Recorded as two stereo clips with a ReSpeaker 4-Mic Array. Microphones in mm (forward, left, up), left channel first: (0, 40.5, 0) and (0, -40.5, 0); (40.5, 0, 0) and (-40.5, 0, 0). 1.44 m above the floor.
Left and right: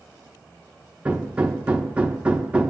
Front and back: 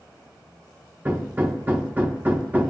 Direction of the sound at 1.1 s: 145° right.